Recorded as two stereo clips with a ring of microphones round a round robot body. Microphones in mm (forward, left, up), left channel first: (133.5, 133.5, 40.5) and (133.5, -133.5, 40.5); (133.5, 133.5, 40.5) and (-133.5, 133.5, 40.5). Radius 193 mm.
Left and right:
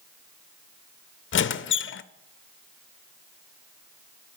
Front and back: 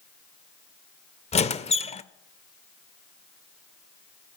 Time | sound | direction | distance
1.3 | a squeak | 60° left | 0.6 m